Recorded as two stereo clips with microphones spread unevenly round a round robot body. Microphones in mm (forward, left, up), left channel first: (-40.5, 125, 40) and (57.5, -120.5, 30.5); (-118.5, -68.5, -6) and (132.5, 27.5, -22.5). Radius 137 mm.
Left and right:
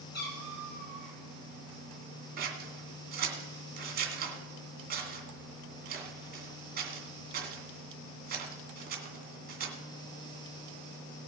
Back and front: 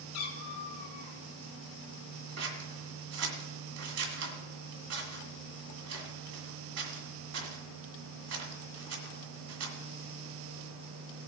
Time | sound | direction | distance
0.1 | a cat meowing | 165° left | 3 m
2.4 | scissors | 10° right | 2 m